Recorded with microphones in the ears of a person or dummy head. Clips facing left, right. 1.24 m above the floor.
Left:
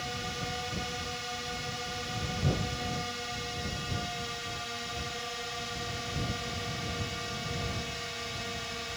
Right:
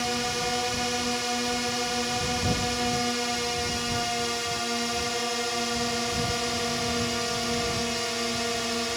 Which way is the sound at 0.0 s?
65° right (ahead or behind).